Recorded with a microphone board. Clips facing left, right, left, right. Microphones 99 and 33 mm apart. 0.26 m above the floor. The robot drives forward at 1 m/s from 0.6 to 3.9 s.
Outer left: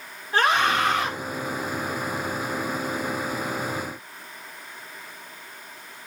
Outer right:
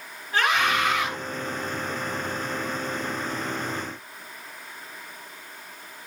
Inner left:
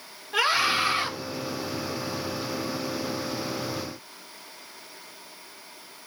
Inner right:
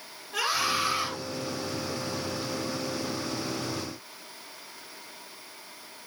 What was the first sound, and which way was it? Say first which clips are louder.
A scream: outer left 2 dB, inner left 4 dB; 35° left (ahead or behind).